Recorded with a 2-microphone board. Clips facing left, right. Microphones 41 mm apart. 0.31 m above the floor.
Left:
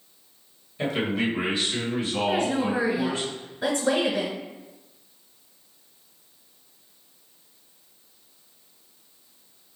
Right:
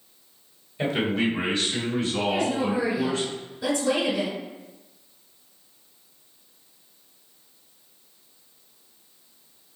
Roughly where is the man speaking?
Centre.